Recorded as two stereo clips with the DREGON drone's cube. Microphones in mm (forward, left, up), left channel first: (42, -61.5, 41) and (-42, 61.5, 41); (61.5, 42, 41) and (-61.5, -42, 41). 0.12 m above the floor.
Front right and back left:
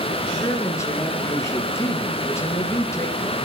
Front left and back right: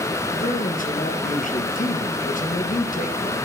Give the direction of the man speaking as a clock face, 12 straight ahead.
12 o'clock.